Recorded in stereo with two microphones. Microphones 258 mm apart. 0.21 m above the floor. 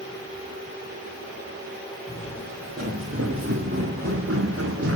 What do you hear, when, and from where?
2.1 s footsteps: 55° right (ahead or behind), 5 m; by 5.0 s 60° right (ahead or behind), 2 m